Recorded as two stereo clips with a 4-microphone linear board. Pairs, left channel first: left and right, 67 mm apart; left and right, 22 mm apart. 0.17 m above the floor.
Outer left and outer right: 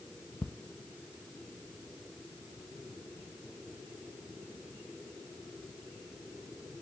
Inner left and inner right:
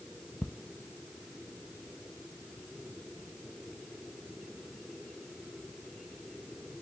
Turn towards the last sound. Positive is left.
turn(degrees=30)  # may be behind; listen again after turning